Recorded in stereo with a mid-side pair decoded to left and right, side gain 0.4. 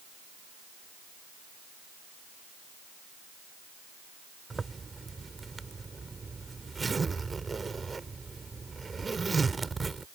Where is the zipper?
30° right.